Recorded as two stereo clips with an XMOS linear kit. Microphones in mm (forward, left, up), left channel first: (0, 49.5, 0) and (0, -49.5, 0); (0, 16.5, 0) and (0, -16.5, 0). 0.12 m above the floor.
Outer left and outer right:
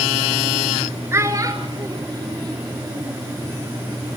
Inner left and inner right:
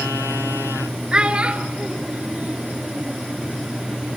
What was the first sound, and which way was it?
A child speaking, 25° right (ahead or behind).